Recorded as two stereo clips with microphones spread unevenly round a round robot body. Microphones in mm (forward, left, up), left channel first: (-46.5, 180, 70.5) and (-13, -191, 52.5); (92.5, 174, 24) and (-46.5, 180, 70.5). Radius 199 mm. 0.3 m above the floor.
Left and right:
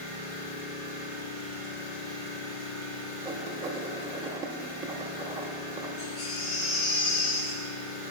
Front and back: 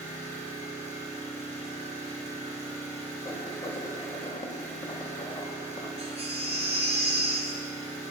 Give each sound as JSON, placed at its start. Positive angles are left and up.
{"t": 0.0, "sound": "an engine running", "azimuth_deg": 70, "distance_m": 3.0}
{"t": 3.2, "sound": "writing", "azimuth_deg": -10, "distance_m": 0.9}
{"t": 6.0, "sound": "a baby crying", "azimuth_deg": 120, "distance_m": 1.4}